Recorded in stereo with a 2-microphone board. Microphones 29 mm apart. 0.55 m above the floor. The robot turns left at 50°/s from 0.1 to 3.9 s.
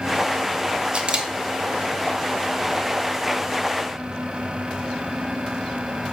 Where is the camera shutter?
40° right (ahead or behind), 0.5 m; by 6.1 s 50° left (ahead or behind), 0.5 m.